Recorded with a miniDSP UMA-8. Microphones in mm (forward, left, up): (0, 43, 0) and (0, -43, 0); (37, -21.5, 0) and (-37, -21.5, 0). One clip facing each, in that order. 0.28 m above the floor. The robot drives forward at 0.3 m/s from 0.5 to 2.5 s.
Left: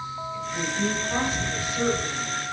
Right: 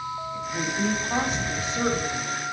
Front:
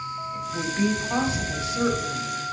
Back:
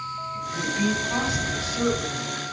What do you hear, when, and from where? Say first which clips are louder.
0.3 s a woman speaking: even, even; 30° right, 1.2 m; by 2.4 s 65° right, 1.0 m